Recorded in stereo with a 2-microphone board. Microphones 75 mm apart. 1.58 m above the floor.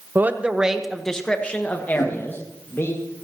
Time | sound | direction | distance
0.1 | a man speaking | 30° right (ahead or behind) | 1.1 m
1.9 | a whoosh | 70° left (ahead or behind) | 2.5 m